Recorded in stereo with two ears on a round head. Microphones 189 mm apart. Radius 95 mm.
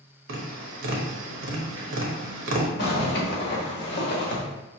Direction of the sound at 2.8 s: 50° left (ahead or behind).